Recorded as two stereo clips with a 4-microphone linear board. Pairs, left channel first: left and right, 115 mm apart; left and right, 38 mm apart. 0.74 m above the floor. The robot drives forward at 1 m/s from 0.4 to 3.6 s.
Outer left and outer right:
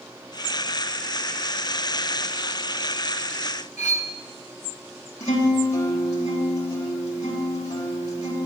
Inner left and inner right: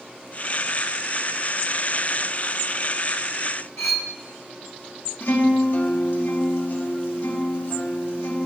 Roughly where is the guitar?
Left.